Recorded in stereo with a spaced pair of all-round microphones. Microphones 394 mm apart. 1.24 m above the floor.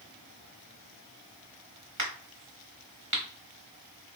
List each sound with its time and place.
2.0 s a crack: 45° right (ahead or behind), 1.4 m